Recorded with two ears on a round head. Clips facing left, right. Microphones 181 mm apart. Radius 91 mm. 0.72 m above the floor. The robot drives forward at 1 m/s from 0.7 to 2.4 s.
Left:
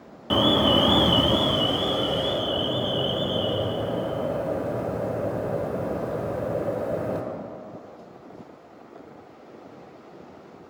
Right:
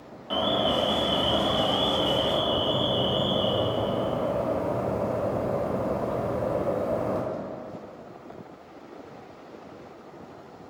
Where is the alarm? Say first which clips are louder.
Left 5 dB; 60° left (ahead or behind), 0.6 m; by 7.2 s 20° left (ahead or behind), 1.5 m.